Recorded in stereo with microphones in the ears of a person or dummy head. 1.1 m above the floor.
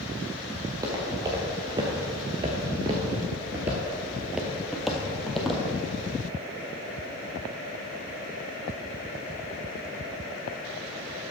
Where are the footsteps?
20° right (ahead or behind), 1.8 m; by 5.6 s centre (ahead or behind), 1.8 m.